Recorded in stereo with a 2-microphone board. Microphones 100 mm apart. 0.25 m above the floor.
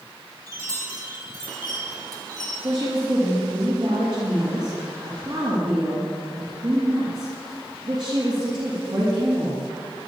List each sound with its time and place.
0.5 s a chime: 40° right (ahead or behind), 2.5 m
2.6 s a woman speaking: 55° right (ahead or behind), 5 m